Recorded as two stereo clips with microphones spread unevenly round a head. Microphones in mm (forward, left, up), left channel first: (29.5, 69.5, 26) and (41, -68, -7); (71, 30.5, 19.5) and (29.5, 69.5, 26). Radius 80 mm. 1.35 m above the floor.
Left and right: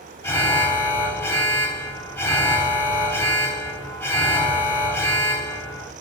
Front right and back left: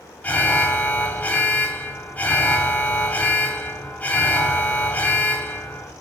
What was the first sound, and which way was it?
An alarm, 20° left.